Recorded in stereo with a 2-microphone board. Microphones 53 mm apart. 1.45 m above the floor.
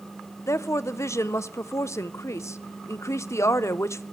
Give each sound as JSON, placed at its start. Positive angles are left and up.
{"t": 0.5, "sound": "a woman speaking", "side_deg": 65, "distance_m": 0.5}